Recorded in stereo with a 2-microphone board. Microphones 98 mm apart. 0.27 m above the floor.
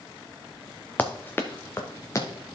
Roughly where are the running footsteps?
Centre.